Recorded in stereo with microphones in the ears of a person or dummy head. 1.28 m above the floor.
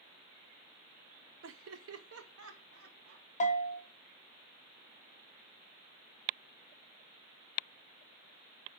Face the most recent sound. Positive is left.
turn(degrees=35)  # may be behind; listen again after turning